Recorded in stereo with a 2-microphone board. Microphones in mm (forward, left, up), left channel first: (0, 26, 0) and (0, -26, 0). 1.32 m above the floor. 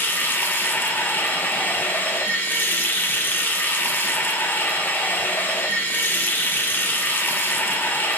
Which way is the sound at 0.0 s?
40° left (ahead or behind).